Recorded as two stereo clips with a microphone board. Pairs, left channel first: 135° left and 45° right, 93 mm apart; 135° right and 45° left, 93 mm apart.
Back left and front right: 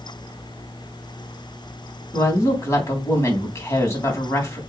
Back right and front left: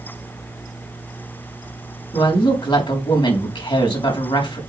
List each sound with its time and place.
2.1 s a woman speaking: 165° right, 3.5 m